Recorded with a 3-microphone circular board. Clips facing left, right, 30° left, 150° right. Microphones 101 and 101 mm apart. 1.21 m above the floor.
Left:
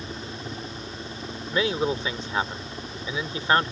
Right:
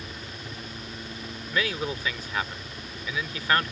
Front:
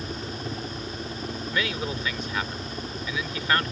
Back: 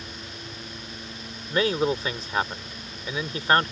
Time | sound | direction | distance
0.0 | a helicopter | 35° left | ?
1.5 | a man speaking | 155° left | ?